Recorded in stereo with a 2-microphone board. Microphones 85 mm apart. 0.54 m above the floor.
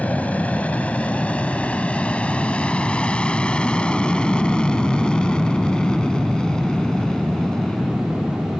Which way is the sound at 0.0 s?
15° left (ahead or behind).